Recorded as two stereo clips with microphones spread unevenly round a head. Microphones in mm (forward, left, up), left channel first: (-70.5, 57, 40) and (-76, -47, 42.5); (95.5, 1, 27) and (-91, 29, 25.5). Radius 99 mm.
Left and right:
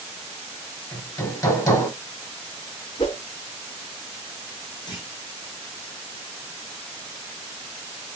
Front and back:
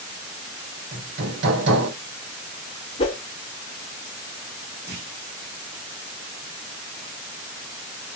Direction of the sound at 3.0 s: 40° left.